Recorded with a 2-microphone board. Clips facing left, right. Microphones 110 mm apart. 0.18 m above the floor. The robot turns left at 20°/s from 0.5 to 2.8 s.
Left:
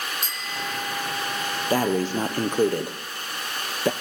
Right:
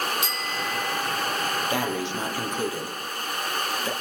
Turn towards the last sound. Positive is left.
turn(degrees=55)  # may be behind; listen again after turning